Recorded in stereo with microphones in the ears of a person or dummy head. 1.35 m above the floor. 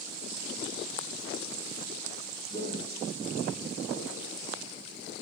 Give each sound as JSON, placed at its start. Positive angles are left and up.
{"t": 2.5, "sound": "footsteps", "side_deg": 35, "distance_m": 3.5}